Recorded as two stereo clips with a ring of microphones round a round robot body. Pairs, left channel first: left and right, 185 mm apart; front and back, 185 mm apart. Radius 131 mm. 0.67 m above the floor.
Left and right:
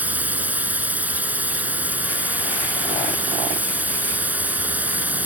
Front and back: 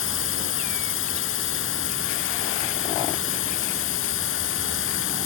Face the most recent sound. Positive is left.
turn(degrees=-10)